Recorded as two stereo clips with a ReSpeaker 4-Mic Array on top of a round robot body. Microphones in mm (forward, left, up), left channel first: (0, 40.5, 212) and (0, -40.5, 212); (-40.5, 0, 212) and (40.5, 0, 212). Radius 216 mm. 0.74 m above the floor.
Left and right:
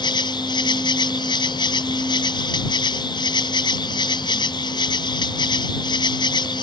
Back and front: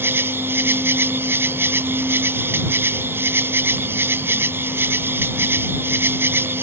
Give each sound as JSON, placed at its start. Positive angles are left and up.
{"t": 0.0, "sound": "an insect", "azimuth_deg": 65}